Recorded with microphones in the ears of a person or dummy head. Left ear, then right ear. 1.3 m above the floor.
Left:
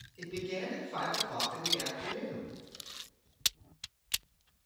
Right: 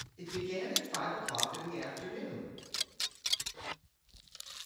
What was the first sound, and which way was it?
A man speaking, 5° left (ahead or behind).